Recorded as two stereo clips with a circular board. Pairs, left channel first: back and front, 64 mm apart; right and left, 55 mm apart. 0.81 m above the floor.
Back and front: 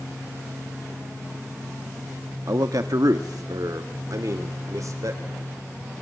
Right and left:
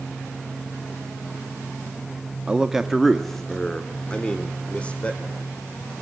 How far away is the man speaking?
About 0.9 m.